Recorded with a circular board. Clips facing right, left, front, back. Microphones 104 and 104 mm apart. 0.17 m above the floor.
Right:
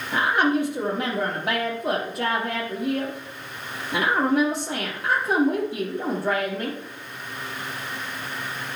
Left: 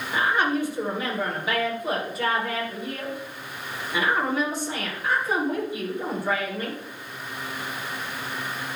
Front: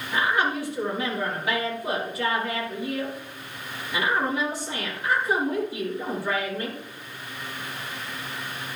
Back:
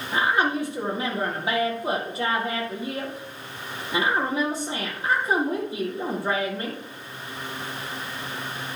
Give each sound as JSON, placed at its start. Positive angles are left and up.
{"t": 0.1, "sound": "a woman speaking", "azimuth_deg": -115, "distance_m": 6.5}